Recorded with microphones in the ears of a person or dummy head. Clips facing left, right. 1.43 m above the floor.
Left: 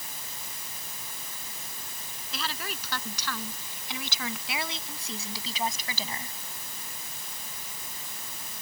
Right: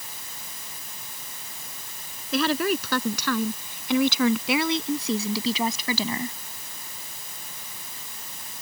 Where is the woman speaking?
50° right (ahead or behind); by 6.4 s 55° right (ahead or behind).